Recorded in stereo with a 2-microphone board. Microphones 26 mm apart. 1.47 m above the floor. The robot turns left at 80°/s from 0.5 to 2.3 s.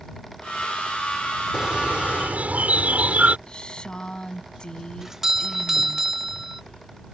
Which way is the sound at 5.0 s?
20° right (ahead or behind).